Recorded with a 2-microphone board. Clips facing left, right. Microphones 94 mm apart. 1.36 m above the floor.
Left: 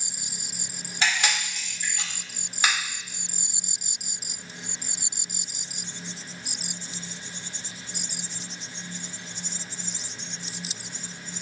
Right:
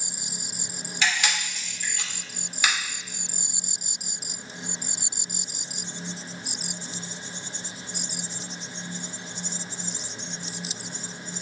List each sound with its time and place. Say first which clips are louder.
1.0 s a camera shutter: even; 35° left (ahead or behind), 1.1 m